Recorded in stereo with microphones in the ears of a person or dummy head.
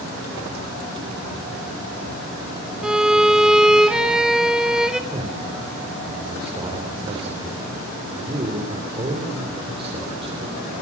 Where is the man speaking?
25° right (ahead or behind), 4 m.